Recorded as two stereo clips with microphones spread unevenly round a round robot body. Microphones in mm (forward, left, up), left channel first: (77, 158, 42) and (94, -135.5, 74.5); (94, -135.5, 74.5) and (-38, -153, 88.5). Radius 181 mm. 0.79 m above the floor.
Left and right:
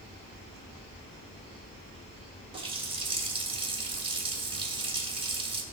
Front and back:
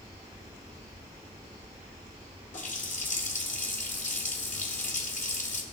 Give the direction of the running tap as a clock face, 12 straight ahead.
12 o'clock.